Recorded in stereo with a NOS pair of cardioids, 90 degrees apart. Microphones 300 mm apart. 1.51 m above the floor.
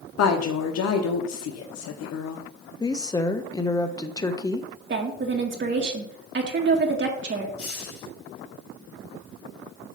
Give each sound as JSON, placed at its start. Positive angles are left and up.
{"t": 0.2, "sound": "a woman speaking", "azimuth_deg": 60, "distance_m": 1.0}
{"t": 2.8, "sound": "a woman speaking", "azimuth_deg": 10, "distance_m": 1.0}
{"t": 4.9, "sound": "a woman speaking", "azimuth_deg": -40, "distance_m": 1.7}
{"t": 7.6, "sound": "a hiss", "azimuth_deg": 50, "distance_m": 4.5}